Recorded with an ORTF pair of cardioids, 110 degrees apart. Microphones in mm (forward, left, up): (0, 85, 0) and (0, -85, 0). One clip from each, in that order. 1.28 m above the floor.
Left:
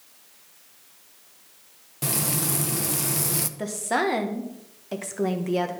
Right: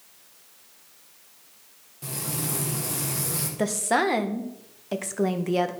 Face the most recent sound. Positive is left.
turn(degrees=-15)